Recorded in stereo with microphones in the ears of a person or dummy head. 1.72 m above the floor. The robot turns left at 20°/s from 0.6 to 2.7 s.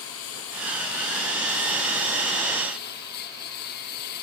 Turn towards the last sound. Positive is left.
turn(degrees=55)